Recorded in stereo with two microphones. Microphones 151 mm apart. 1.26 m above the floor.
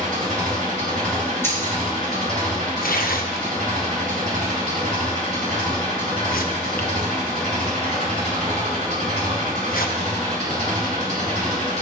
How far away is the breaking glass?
About 3 m.